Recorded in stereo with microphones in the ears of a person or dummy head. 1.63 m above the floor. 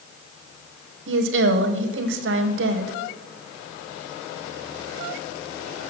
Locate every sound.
1.1 s a woman speaking: 75° right (ahead or behind), 1.1 m